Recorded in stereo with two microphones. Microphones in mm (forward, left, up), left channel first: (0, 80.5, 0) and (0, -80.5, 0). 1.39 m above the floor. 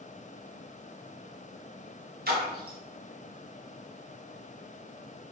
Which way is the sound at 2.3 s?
75° right (ahead or behind).